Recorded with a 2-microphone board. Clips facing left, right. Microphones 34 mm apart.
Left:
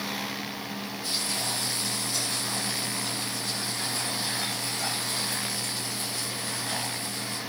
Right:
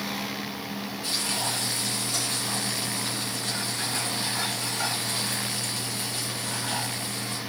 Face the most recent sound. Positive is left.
turn(degrees=-65)  # may be behind; listen again after turning